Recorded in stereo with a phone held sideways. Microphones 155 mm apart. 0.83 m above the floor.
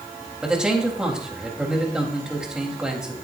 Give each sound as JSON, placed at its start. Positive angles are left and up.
{"t": 0.4, "sound": "a man speaking", "side_deg": -5, "distance_m": 3.5}